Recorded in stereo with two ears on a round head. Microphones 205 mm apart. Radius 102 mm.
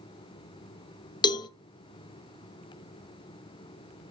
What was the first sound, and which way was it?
A cowbell, 20° left (ahead or behind).